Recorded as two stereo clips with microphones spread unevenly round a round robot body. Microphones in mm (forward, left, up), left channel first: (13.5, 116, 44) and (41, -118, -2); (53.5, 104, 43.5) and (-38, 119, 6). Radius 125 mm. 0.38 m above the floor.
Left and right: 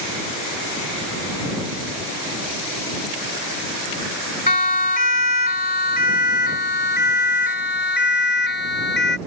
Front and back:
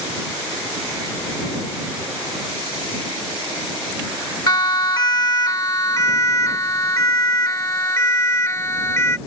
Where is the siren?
35° left; by 9.2 s 50° left.